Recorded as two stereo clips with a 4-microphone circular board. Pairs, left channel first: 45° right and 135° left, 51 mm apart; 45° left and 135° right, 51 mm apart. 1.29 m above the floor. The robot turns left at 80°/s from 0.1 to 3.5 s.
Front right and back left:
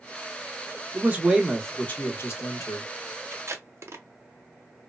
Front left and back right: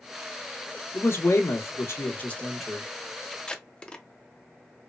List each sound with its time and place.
0.9 s a man speaking: 90° left, 1.0 m; by 2.9 s 60° right, 1.0 m
3.3 s tape being pulled: 130° left, 0.6 m; by 4.0 s 115° left, 0.6 m